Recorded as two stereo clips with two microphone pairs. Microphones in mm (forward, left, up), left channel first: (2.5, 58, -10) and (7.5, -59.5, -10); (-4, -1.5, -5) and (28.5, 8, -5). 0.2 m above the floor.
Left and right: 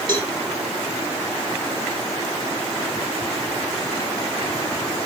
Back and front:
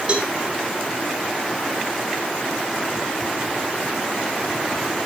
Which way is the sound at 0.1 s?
40° right.